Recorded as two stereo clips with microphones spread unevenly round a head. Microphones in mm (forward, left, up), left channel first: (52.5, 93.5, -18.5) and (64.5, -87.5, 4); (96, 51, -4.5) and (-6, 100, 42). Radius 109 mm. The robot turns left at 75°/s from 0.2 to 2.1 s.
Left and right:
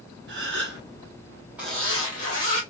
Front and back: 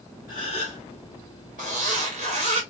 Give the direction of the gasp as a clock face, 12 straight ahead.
3 o'clock.